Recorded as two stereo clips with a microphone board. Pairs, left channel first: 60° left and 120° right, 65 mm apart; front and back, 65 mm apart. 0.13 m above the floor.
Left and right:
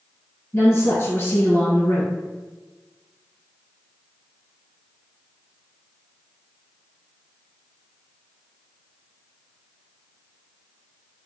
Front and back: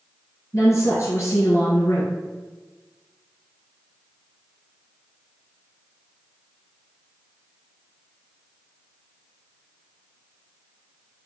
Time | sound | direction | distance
0.5 | a woman speaking | 25° left | 1.8 m